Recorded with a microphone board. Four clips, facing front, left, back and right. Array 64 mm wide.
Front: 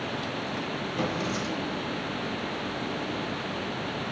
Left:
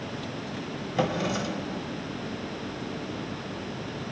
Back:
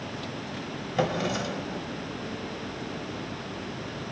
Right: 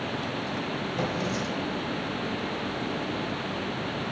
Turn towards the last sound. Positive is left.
turn(degrees=140)